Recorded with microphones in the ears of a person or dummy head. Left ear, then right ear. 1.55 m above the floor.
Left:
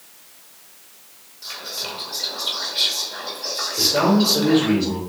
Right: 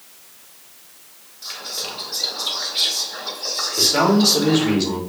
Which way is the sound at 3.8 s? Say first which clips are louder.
Right 1 dB; 60° right (ahead or behind).